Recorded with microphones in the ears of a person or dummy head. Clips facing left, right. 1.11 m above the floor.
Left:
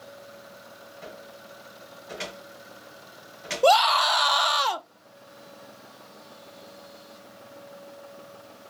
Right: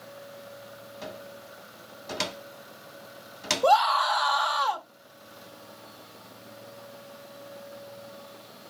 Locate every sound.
1.0 s a cupboard door: 50° right (ahead or behind), 1.4 m
3.6 s a scream: 35° left (ahead or behind), 0.5 m